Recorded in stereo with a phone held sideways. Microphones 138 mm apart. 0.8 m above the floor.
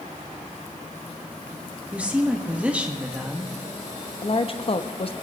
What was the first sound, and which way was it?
A woman speaking, 10° right (ahead or behind).